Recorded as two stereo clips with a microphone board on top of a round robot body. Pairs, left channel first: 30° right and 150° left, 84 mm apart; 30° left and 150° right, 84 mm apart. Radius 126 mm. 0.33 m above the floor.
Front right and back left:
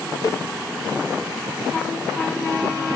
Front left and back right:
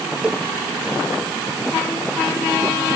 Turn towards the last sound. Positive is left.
turn(degrees=-75)